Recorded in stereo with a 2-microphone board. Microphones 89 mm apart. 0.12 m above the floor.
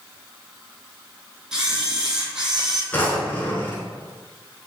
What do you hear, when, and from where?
1.5 s a camera shutter: 5° right (ahead or behind), 0.7 m
2.9 s a drawer: 20° left (ahead or behind), 0.8 m